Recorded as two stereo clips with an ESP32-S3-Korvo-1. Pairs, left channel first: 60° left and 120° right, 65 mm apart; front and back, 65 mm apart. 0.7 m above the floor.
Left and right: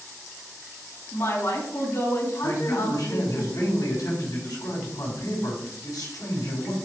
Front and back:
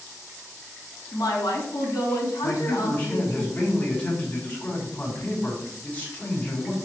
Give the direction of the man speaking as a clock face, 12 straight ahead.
10 o'clock.